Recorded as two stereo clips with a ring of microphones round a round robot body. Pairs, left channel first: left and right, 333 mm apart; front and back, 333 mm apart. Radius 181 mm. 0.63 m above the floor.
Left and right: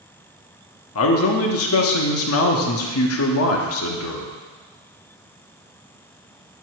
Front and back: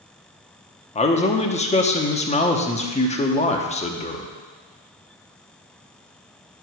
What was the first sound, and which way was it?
A man speaking, 65° left.